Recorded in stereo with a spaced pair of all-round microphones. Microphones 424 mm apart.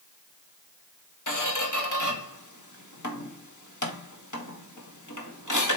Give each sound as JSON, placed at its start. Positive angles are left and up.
{"t": 1.3, "sound": "a squeak", "side_deg": 45, "distance_m": 1.7}